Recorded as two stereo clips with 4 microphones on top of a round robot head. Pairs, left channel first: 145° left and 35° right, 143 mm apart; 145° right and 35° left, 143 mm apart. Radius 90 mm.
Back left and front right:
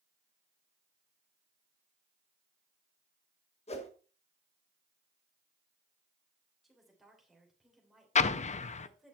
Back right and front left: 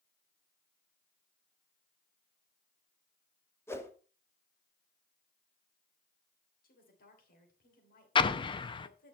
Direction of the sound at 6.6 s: 125° right.